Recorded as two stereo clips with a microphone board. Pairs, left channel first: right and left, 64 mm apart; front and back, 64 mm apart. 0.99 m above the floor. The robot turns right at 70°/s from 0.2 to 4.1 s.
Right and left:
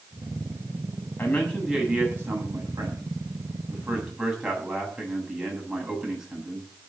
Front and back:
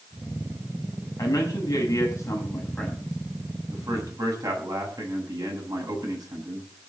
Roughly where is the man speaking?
Ahead right.